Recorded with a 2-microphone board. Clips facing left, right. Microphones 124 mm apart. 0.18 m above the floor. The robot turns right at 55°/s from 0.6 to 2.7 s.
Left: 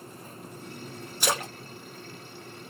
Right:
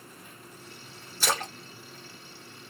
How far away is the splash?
About 1.6 m.